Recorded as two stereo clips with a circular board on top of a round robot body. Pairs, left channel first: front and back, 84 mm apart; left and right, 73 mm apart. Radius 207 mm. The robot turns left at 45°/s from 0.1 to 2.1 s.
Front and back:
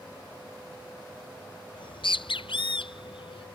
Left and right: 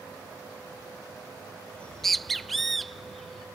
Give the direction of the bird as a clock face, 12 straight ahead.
11 o'clock.